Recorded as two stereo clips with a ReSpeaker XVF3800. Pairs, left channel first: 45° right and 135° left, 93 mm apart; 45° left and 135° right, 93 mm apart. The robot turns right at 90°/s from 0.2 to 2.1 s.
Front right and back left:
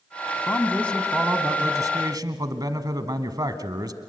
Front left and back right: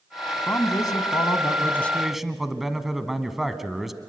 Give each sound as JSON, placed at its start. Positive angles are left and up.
{"t": 0.5, "sound": "a man speaking", "azimuth_deg": -10, "distance_m": 1.5}